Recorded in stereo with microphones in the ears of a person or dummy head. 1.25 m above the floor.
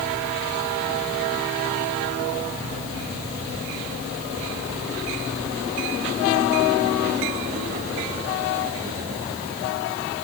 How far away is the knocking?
No knocking in this recording.